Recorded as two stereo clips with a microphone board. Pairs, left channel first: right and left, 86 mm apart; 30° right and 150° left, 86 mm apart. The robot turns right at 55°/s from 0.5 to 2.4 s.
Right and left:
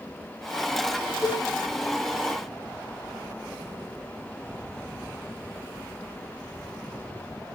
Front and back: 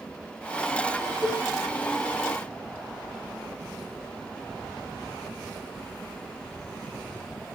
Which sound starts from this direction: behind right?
A cowbell, at 1.2 s.